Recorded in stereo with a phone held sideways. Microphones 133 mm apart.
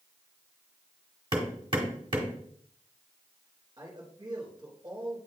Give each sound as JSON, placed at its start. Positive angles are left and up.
{"t": 1.3, "sound": "hammering", "side_deg": -35, "distance_m": 1.6}
{"t": 3.8, "sound": "a man speaking", "side_deg": -30, "distance_m": 2.5}